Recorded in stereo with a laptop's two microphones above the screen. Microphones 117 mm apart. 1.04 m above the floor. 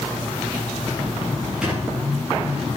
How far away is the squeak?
About 7 m.